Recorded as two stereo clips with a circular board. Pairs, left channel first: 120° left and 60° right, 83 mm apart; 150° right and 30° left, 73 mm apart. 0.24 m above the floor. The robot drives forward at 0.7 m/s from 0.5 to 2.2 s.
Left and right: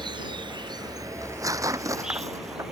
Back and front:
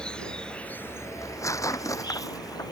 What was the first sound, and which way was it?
An insect, 75° right.